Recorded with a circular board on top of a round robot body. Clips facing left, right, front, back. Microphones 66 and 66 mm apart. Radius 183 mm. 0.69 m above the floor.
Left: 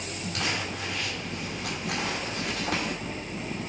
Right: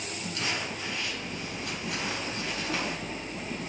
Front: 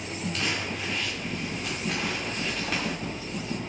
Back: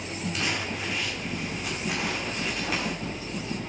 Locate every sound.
0.3 s crumpling: 100° left, 5 m